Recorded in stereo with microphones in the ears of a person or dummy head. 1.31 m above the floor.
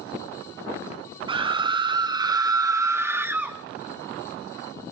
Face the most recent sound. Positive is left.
turn(degrees=-15)  # may be behind; listen again after turning